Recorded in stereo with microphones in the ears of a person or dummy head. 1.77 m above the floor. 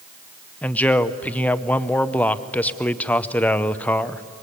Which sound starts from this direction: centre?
A man speaking, at 0.6 s.